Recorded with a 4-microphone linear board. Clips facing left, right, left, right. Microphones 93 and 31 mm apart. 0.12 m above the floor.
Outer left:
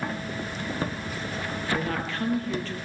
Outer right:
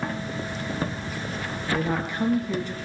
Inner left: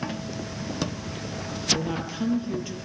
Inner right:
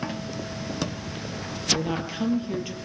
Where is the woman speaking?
15° right (ahead or behind), 3 m.